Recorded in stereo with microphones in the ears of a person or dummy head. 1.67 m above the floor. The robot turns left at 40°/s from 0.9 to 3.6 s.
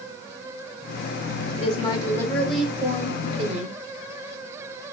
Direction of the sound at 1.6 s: 40° left.